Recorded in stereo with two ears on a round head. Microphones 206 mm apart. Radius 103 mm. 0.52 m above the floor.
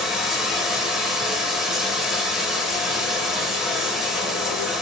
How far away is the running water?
About 0.8 m.